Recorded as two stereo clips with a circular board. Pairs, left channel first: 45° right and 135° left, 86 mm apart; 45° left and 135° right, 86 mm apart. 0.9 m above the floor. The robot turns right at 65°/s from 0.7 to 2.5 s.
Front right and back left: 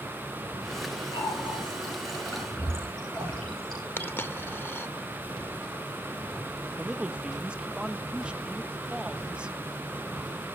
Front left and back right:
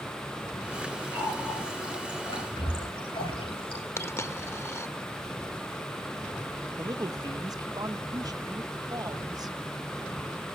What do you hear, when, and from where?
1.1 s a running tap: 50° right, 9.5 m; by 3.8 s 35° left, 9.5 m
4.0 s a dropped coin: 5° left, 0.6 m
6.8 s a man speaking: 150° right, 0.9 m